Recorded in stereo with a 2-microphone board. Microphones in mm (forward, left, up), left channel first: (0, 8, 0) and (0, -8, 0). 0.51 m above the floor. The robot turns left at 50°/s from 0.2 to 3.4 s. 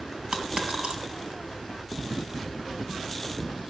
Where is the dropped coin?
45° right (ahead or behind), 2 m; by 1.0 s 80° right, 2 m.